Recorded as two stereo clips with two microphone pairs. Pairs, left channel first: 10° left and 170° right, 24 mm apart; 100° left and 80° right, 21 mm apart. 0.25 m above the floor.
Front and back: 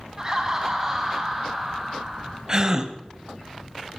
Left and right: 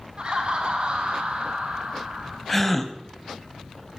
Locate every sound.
0.2 s laughter: 110° right, 2.5 m; by 2.4 s 90° right, 3 m
2.5 s a gasp: 170° left, 0.8 m